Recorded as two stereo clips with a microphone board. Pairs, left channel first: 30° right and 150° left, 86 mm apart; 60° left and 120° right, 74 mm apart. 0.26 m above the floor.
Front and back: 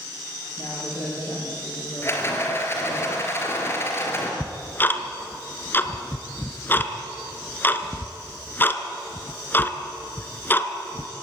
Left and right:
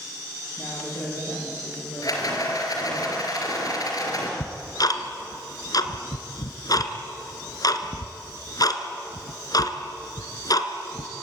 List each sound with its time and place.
0.6 s a man speaking: 20° left, 9.5 m; by 3.0 s 30° left, 9 m
2.0 s a rattle: 30° left, 4 m
4.4 s ticking: 35° left, 1.4 m